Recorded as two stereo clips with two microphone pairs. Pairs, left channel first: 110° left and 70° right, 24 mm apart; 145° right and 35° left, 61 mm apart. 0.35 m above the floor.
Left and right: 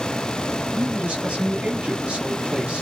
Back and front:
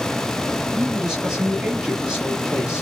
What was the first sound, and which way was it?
A man speaking, 45° right.